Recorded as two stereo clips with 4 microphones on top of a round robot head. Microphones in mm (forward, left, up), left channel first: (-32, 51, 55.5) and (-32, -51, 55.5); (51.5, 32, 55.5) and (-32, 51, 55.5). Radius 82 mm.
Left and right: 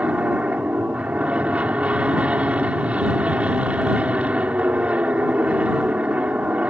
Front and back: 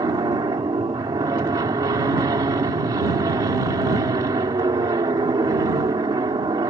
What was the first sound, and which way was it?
An aircraft, 165° right.